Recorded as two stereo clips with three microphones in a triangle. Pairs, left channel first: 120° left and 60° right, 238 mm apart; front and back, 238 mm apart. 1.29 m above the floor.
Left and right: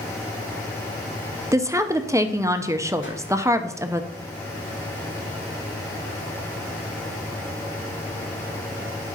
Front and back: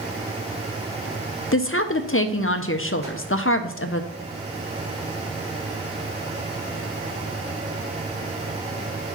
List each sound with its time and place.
1.5 s a woman speaking: 20° left, 0.6 m
3.0 s a whoosh: 125° left, 1.3 m